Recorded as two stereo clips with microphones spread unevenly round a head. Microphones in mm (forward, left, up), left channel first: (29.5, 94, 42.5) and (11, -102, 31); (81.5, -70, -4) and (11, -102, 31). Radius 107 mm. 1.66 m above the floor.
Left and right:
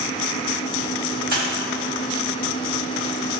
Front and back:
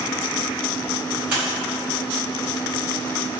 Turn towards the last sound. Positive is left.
turn(degrees=-130)